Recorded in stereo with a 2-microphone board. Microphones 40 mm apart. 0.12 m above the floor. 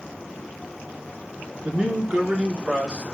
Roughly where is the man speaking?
Right.